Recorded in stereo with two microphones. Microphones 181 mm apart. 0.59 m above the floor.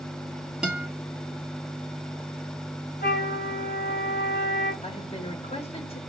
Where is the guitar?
5° right (ahead or behind), 1.6 m.